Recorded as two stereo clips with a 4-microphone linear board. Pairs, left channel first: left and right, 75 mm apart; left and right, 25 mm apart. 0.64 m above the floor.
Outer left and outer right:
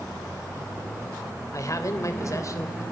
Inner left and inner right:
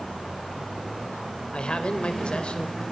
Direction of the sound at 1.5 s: 45° left (ahead or behind).